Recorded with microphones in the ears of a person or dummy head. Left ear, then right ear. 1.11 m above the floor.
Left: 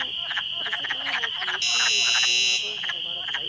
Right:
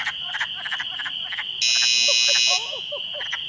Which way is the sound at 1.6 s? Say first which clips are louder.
Right 4 dB; 25° right (ahead or behind).